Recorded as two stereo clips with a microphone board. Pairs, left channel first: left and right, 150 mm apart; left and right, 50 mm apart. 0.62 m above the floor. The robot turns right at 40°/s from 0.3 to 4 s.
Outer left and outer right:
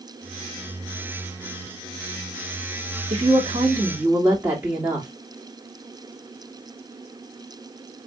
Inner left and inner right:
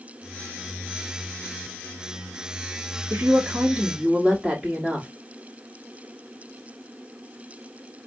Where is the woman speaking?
50° right, 1.8 m; by 5.1 s 10° right, 1.8 m.